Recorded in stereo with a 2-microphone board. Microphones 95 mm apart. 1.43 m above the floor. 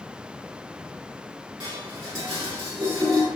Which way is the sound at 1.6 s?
35° right (ahead or behind).